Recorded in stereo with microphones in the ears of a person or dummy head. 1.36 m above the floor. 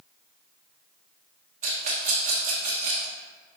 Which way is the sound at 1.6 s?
45° right (ahead or behind).